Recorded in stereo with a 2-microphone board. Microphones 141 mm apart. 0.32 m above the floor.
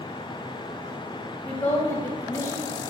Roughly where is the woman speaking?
Centre.